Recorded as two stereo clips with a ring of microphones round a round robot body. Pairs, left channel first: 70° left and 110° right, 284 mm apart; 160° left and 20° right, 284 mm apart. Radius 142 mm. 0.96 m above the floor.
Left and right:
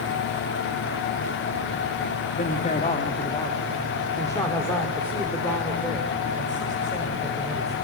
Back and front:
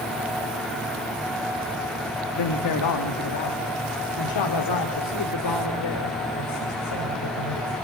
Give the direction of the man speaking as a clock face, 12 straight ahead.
8 o'clock.